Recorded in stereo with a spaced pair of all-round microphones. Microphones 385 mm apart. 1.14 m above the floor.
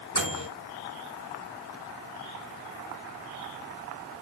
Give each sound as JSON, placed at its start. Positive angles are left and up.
{"t": 0.1, "sound": "a microwave", "side_deg": 45, "distance_m": 3.5}